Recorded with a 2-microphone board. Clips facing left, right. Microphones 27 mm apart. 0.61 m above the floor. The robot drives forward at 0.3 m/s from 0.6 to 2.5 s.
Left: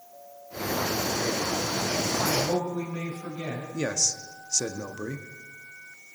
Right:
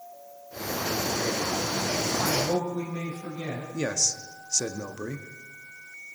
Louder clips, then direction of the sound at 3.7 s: Even; 5° right (ahead or behind).